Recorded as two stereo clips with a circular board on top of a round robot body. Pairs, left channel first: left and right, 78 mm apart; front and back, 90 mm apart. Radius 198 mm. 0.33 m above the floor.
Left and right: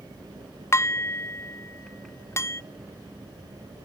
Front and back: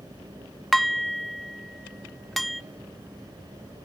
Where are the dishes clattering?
85° left, 0.6 m.